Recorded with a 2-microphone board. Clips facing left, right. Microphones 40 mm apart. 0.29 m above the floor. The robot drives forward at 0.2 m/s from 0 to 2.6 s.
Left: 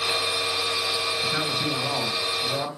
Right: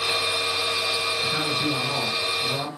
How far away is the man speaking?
About 2.5 m.